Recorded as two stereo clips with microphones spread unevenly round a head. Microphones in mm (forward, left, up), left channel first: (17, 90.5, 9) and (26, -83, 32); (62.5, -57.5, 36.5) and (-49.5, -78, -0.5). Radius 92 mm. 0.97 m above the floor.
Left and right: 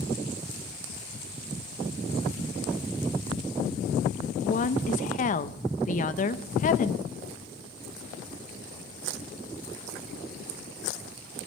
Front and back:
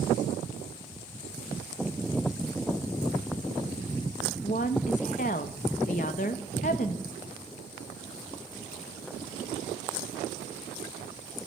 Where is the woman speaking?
55° left, 0.7 m.